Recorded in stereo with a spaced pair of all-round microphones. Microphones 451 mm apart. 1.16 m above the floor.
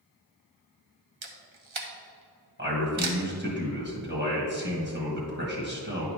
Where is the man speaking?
25° right (ahead or behind), 1.3 m.